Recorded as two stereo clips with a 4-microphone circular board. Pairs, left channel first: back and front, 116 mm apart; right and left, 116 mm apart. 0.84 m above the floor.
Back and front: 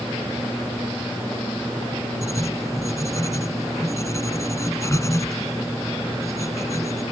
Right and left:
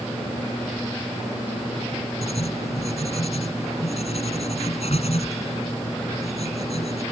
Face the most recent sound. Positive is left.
turn(degrees=-115)